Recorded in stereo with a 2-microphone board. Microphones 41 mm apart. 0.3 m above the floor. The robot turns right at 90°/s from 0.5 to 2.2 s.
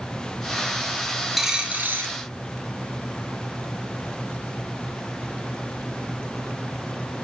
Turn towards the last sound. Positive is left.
turn(degrees=-105)